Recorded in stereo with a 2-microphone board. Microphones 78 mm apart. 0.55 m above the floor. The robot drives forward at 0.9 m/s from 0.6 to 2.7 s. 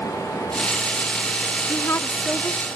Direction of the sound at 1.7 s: 35° left (ahead or behind).